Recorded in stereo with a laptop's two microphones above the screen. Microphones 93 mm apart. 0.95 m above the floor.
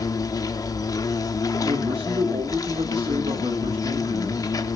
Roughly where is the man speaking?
Right.